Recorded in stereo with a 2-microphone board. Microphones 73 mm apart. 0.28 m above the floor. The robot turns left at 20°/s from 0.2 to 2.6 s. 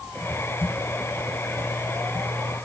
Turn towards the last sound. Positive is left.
No sound to turn to.